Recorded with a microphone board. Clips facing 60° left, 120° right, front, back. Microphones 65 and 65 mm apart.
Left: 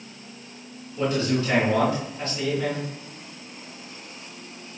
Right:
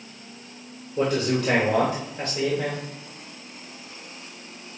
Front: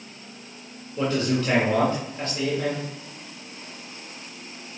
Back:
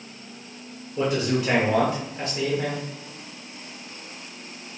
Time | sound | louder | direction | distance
1.0 | a man speaking | right 1 dB, even | 110° right | 1.6 m